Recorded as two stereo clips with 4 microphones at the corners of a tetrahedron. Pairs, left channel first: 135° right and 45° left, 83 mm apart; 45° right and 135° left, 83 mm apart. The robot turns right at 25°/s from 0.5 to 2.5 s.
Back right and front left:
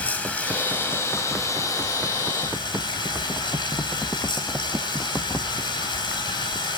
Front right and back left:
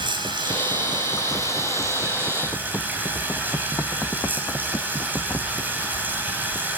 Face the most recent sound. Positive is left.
turn(degrees=-160)